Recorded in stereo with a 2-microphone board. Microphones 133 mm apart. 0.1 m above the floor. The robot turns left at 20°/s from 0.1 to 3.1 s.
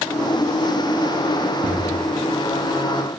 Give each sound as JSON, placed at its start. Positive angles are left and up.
{"t": 1.6, "sound": "a thud", "side_deg": -85, "distance_m": 3.0}